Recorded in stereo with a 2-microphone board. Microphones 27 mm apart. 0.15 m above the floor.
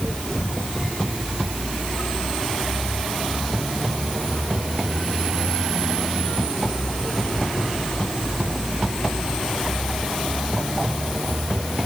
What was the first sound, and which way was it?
Only background noise.